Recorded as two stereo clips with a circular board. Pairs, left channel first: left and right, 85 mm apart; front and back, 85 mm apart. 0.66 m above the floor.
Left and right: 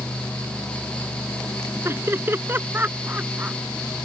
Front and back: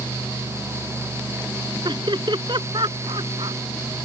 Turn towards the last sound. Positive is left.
turn(degrees=-160)